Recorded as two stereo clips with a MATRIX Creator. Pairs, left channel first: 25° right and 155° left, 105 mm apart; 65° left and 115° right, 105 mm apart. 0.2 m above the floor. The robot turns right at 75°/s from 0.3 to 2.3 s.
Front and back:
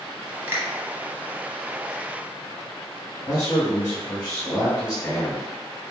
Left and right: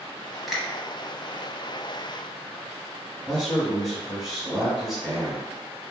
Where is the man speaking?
25° right, 1.8 m.